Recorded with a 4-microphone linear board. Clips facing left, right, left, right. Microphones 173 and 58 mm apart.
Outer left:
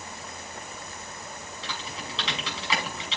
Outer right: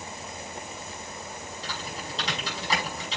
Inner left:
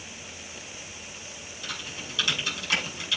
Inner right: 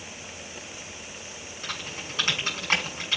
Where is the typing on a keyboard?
35° right (ahead or behind), 6.5 m.